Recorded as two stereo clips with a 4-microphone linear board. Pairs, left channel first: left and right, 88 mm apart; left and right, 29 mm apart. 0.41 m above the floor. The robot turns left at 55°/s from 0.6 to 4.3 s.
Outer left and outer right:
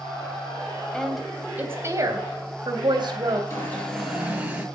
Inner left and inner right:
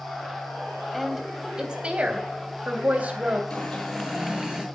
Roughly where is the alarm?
Ahead left.